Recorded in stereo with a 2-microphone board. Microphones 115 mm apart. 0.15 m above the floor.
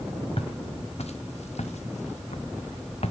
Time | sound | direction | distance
0.4 | footsteps | 60° left (ahead or behind) | 1.7 m